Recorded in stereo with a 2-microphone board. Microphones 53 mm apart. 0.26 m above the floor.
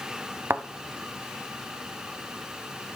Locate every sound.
0.5 s a thud: 55° right (ahead or behind), 0.5 m